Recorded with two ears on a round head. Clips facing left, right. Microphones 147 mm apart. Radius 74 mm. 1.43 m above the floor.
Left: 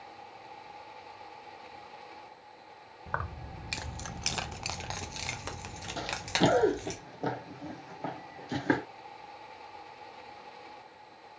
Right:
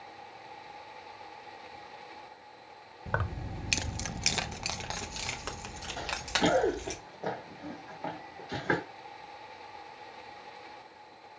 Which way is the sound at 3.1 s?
35° right (ahead or behind).